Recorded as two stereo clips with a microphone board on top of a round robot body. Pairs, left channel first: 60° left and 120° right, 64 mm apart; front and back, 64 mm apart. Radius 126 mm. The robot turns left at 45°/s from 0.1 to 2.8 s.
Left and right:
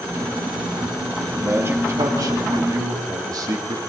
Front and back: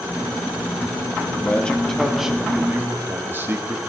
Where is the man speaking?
50° right, 2.5 m; by 3.8 s 125° right, 2.5 m.